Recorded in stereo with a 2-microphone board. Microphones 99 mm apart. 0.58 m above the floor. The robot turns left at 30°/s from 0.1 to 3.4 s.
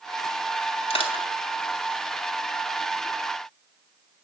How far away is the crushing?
About 3 m.